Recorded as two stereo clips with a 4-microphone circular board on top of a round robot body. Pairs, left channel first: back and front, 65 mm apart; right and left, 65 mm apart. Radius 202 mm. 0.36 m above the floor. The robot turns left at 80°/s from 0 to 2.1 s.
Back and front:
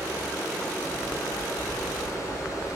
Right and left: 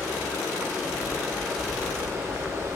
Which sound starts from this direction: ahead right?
Running water, at 0.0 s.